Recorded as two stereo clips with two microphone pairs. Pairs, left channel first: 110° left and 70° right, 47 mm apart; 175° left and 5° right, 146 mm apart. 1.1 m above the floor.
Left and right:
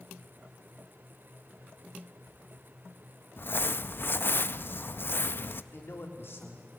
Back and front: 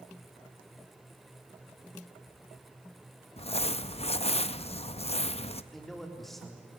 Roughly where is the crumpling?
Behind left.